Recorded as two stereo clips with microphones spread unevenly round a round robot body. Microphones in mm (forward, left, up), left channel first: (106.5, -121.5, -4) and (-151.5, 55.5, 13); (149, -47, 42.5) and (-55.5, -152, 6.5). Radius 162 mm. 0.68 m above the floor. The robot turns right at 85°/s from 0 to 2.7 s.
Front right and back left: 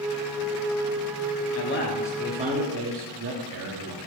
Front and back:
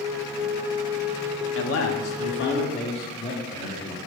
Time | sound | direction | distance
1.6 | a man speaking | straight ahead | 0.9 m